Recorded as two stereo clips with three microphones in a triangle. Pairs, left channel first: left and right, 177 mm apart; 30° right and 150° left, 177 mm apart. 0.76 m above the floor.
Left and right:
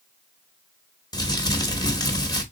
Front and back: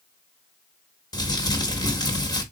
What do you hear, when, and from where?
1.1 s crumpling: 30° left, 1.0 m